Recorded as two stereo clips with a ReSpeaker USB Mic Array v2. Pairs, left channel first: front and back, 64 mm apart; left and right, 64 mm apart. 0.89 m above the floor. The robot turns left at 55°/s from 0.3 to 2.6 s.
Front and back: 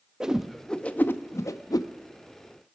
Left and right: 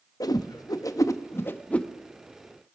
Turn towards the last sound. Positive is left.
turn(degrees=-25)